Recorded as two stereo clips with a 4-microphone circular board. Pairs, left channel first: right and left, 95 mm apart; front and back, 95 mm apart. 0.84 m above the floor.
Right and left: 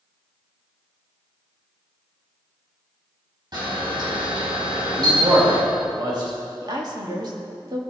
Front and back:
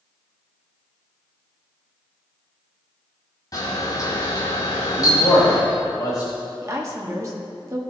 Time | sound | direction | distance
3.5 | a camera shutter | 50° left | 4 m
5.0 | a man speaking | 45° left | 3.5 m
6.6 | a woman speaking | 130° left | 1.7 m